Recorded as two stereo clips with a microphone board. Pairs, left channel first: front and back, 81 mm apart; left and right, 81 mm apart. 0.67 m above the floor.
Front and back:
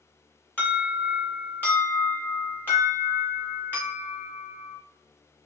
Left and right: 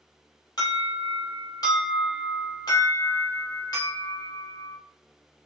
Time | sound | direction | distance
0.6 | an alarm | 65° left | 2 m